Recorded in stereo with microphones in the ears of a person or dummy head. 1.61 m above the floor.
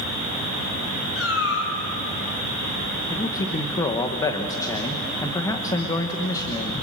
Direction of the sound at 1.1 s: 80° left.